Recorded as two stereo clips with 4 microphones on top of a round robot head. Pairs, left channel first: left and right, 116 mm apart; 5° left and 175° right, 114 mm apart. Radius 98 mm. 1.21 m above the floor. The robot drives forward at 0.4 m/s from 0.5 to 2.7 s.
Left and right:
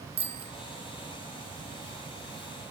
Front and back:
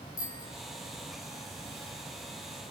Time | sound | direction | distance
0.2 | a bicycle bell | 55° right | 3.5 m